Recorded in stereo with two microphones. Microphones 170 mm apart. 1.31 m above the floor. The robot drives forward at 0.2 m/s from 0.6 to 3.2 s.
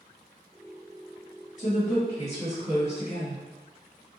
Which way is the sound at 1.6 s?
45° left (ahead or behind).